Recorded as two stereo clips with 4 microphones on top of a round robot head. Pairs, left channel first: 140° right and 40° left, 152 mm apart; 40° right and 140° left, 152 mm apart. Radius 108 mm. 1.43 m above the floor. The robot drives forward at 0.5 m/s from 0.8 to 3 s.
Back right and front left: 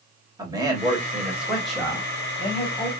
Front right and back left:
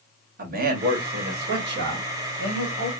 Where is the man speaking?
110° left, 1.0 m; by 2.9 s 145° left, 1.7 m.